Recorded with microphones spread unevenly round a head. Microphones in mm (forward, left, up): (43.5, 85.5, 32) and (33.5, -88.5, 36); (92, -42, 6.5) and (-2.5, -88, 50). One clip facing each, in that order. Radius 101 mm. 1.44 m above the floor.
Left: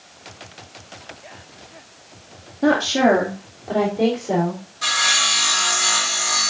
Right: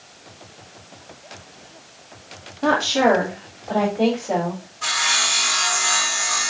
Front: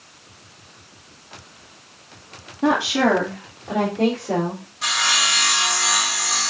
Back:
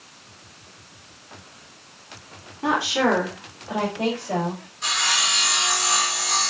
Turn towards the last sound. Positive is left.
turn(degrees=40)